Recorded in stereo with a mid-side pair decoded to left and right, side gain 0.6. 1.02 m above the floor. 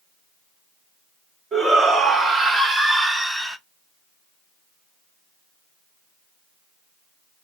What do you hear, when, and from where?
1.5 s a shout: 35° right, 1.7 m; by 3.6 s straight ahead, 0.8 m